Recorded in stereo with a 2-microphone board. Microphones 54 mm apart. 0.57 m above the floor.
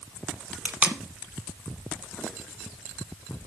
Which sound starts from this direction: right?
Tape being pulled, at 0.7 s.